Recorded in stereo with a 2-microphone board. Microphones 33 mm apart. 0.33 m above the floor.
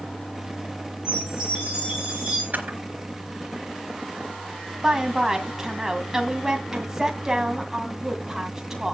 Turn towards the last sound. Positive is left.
turn(degrees=-15)  # may be behind; listen again after turning